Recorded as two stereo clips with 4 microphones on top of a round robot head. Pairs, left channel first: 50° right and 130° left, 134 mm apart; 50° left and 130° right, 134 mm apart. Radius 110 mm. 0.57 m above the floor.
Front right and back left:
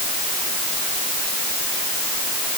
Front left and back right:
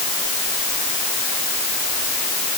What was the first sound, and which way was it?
Only background noise.